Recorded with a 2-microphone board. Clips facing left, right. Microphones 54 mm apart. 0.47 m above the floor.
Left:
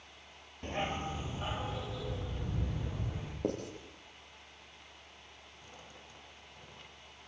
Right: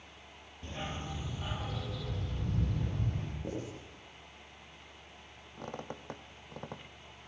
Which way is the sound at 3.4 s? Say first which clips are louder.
Left 6 dB; 70° left (ahead or behind).